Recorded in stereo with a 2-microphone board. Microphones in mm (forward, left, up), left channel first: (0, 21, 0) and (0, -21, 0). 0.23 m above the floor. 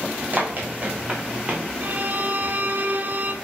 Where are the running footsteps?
40° right (ahead or behind), 3 m; by 1.6 s 25° right (ahead or behind), 3 m.